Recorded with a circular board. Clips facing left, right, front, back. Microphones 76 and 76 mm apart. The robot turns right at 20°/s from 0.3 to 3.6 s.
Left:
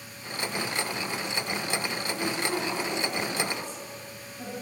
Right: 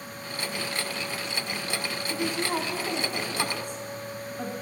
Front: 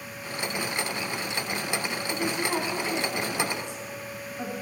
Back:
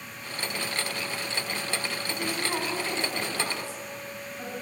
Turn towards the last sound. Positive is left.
turn(degrees=-70)